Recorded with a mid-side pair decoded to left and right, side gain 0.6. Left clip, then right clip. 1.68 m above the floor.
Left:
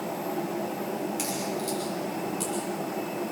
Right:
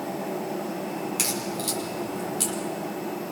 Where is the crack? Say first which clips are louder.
Right 2 dB; 40° right, 6 m.